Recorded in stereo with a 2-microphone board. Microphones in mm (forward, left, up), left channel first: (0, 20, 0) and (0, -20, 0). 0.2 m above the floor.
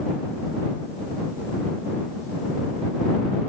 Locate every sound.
Only background noise.